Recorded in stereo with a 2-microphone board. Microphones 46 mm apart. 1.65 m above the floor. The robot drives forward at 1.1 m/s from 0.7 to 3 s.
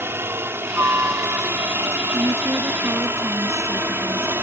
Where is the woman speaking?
80° right; by 4.3 s 85° right.